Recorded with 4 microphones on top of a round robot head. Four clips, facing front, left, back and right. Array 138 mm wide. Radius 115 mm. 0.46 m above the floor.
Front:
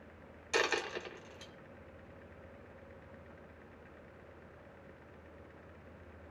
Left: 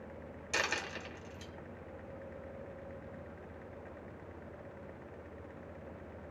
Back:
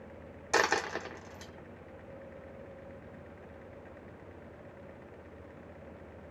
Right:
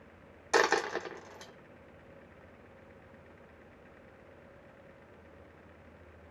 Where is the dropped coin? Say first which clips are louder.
Right 10 dB, back 5 dB; 130° right, 1.7 m.